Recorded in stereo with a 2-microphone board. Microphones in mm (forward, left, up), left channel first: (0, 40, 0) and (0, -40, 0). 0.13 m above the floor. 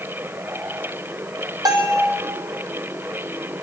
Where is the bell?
60° right (ahead or behind), 3.5 m.